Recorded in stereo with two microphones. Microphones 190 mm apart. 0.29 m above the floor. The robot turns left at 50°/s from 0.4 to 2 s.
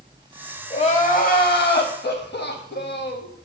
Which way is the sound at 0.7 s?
150° left.